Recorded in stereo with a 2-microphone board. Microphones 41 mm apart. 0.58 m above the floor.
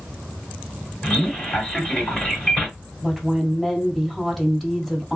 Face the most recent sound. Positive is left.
turn(degrees=5)  # may be behind; listen again after turning